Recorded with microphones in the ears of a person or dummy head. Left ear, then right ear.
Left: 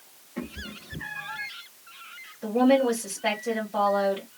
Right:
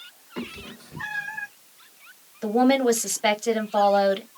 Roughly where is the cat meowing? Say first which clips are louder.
Right 1 dB; right.